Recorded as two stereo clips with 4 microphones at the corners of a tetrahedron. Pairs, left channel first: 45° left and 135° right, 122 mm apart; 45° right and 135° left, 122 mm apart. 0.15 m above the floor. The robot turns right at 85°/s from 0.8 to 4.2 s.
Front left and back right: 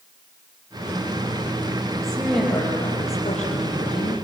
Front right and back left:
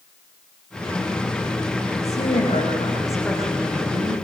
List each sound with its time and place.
2.0 s a woman speaking: 75° right, 6 m; by 4.1 s 105° left, 6 m